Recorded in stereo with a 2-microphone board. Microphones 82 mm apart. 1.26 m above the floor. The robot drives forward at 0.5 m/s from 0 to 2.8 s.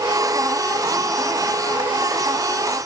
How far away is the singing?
No singing in this recording.